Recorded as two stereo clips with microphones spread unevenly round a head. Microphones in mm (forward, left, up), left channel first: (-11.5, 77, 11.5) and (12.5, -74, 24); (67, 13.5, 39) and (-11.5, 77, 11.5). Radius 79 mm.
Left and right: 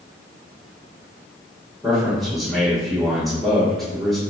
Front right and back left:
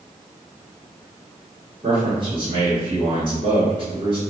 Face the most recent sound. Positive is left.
turn(degrees=-175)